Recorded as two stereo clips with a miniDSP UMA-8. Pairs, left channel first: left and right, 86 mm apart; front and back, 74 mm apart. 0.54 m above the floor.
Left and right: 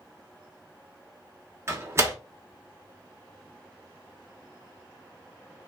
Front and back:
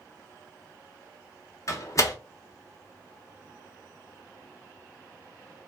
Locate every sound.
1.7 s a door slam: 35° right, 0.8 m